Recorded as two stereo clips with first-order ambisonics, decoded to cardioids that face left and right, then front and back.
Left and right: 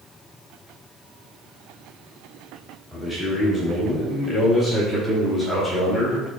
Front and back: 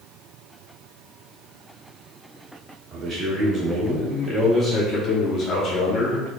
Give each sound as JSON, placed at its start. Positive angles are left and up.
{"t": 2.9, "sound": "a man speaking", "azimuth_deg": 170, "distance_m": 1.5}